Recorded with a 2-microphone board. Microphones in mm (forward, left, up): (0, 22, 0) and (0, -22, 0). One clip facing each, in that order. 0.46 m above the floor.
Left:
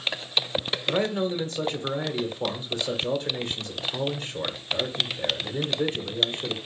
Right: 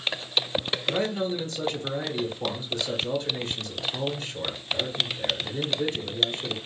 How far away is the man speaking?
About 1.1 m.